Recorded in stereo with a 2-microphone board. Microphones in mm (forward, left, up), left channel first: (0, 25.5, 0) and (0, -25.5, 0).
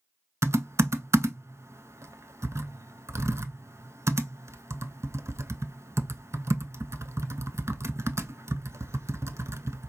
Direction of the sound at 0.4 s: 65° right (ahead or behind).